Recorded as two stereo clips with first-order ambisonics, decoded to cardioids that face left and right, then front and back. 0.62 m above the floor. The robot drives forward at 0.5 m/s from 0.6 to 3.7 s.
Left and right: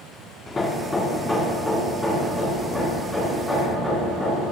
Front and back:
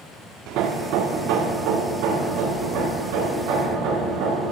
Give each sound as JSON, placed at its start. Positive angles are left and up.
{"t": 0.5, "sound": "hammering", "azimuth_deg": 160, "distance_m": 0.7}